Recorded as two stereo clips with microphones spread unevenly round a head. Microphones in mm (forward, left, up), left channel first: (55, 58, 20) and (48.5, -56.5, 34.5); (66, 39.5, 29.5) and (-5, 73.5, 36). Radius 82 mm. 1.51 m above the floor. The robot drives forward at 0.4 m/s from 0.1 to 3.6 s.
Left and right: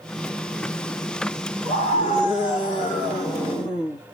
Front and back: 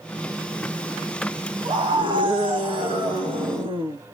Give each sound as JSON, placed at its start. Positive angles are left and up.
{"t": 1.6, "sound": "a scream", "azimuth_deg": 140, "distance_m": 2.0}